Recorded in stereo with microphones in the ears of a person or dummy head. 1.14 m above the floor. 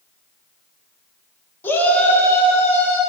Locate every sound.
1.6 s a shout: 10° left (ahead or behind), 1.4 m